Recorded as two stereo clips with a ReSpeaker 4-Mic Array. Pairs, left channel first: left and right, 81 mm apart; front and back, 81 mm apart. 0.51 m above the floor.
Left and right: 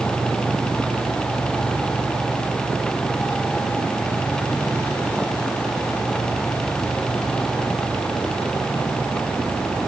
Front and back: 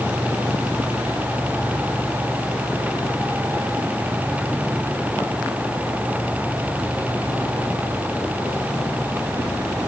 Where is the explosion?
I don't hear an explosion.